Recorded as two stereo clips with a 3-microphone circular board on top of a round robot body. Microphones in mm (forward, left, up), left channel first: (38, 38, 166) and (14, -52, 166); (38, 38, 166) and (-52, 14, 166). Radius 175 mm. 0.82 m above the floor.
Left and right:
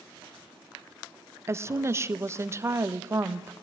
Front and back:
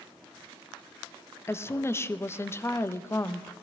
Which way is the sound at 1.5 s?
45° right.